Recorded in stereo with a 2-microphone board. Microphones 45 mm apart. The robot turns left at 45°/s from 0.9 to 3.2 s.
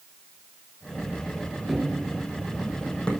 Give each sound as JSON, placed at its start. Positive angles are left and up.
{"t": 1.7, "sound": "running footsteps", "side_deg": -15, "distance_m": 1.0}